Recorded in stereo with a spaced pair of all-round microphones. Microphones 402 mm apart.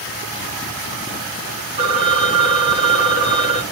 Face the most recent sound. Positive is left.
turn(degrees=-15)  # may be behind; listen again after turning